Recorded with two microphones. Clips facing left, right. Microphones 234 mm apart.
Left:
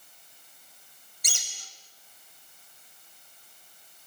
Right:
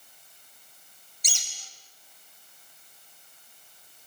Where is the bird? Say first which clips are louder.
Left 3 dB; 60° left (ahead or behind), 3.5 m.